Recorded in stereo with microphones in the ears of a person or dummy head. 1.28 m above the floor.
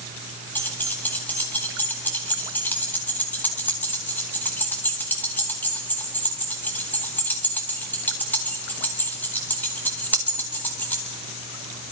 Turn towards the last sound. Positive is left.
turn(degrees=15)  # may be behind; listen again after turning